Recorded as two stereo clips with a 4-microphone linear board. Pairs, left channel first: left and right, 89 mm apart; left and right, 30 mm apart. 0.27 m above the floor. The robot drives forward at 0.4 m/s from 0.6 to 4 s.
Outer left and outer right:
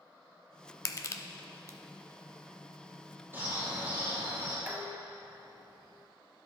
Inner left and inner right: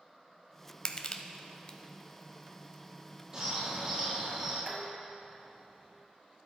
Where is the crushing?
40° left (ahead or behind), 0.6 m; by 1.8 s 30° left (ahead or behind), 0.7 m.